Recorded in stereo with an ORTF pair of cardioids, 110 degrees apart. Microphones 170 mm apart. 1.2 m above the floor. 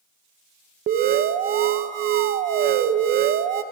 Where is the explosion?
No explosion in this recording.